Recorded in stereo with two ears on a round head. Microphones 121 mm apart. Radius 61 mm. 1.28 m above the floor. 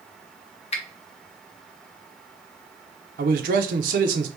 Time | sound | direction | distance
0.7 | a finger snap | 45° left (ahead or behind) | 0.7 m
3.2 | a man speaking | 65° right (ahead or behind) | 0.8 m